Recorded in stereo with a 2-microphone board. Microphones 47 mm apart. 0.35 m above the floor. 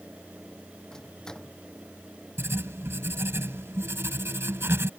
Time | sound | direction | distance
0.9 | a microwave | 10° left (ahead or behind) | ?
2.4 | writing | 65° right (ahead or behind) | ?